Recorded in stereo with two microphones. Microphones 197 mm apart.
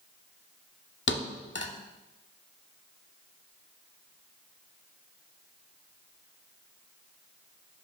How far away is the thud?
About 0.9 m.